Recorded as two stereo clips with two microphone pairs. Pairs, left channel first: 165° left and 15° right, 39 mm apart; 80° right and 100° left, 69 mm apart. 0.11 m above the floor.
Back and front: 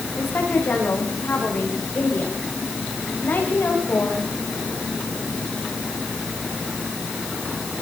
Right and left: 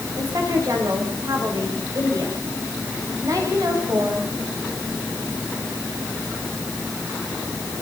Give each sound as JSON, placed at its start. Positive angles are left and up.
{"t": 0.2, "sound": "a woman speaking", "azimuth_deg": 130, "distance_m": 9.5}